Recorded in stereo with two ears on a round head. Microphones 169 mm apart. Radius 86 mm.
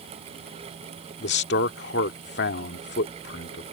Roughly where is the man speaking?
Left.